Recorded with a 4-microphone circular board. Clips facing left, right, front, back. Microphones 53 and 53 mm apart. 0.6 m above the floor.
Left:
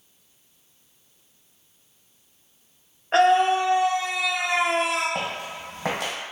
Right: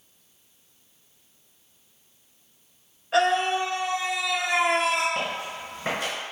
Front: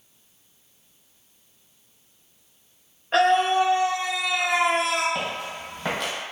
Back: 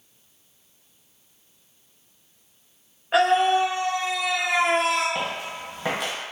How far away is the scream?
About 0.7 m.